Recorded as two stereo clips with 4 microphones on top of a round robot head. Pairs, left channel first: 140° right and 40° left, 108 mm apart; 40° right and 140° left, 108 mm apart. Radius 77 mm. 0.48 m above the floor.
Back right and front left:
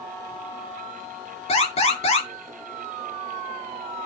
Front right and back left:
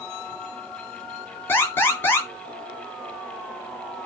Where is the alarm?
110° right, 6.5 m.